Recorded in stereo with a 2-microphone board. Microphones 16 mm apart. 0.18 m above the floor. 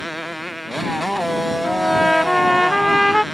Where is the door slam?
I don't hear a door slam.